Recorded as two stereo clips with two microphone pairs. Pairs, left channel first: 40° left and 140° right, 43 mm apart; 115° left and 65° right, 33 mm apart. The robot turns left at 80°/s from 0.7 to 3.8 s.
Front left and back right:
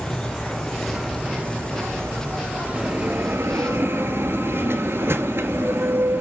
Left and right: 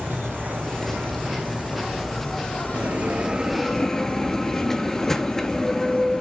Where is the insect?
40° right, 3.5 m; by 6.2 s 75° left, 3.5 m.